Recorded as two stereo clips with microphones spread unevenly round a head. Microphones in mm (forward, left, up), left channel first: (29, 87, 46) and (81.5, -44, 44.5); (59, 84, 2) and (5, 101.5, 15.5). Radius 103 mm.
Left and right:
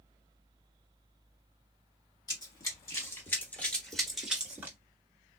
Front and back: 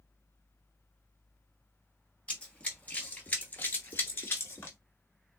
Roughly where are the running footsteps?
Ahead left.